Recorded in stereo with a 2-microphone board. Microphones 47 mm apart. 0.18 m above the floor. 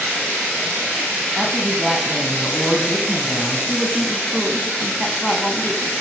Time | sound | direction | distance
1.4 | a woman speaking | centre (ahead or behind) | 1.4 m
3.7 | a woman speaking | 15° left (ahead or behind) | 1.1 m